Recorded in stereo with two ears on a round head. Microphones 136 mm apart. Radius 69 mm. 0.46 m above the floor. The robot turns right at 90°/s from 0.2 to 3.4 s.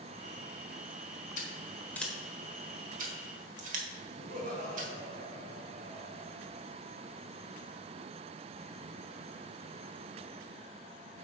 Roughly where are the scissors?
Left.